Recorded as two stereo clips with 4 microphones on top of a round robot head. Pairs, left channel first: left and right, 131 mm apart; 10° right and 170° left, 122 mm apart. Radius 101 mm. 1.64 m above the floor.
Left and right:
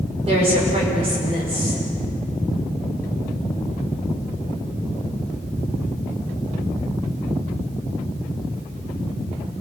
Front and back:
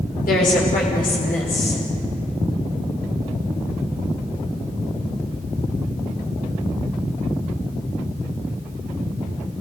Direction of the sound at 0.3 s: 35° right.